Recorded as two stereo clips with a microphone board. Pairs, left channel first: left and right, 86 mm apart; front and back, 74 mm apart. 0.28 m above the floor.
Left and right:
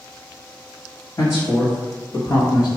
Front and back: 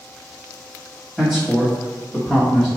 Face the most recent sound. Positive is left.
turn(degrees=85)